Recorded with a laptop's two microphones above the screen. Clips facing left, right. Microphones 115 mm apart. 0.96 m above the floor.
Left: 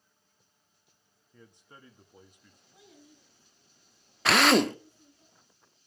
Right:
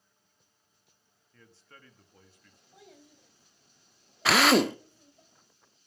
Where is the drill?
Centre (ahead or behind), 0.5 m.